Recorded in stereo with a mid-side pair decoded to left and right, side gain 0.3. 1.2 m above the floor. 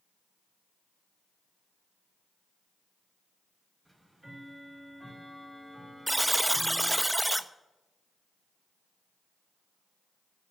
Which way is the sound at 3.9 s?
15° right.